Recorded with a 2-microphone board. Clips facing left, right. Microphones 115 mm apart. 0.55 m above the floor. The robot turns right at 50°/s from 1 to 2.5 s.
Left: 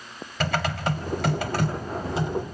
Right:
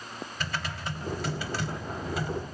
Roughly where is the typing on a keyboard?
Left.